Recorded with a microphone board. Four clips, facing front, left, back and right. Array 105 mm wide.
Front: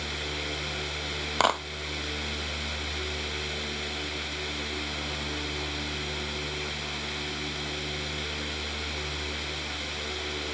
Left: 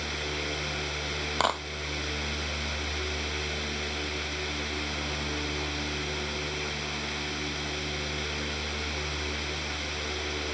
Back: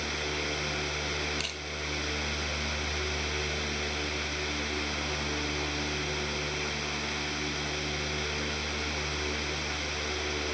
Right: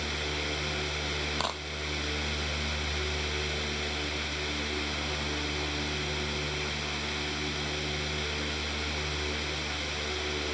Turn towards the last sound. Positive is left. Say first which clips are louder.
# left 10 dB, front 16 dB
turn(degrees=25)